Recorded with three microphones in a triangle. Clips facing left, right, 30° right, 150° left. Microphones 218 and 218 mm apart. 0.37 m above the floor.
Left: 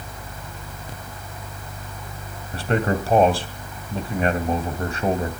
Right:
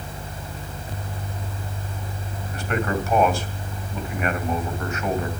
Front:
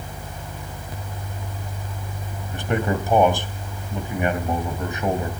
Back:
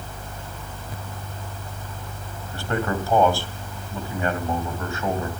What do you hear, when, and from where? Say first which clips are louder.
2.5 s a man speaking: left 3 dB, front 2 dB; 40° left, 2 m